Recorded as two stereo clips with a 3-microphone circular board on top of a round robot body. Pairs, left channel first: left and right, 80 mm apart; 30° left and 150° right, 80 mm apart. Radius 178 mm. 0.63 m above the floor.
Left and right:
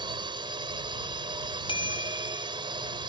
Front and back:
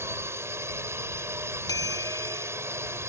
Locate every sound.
0.0 s a drone: 95° right
1.7 s a bicycle bell: 75° left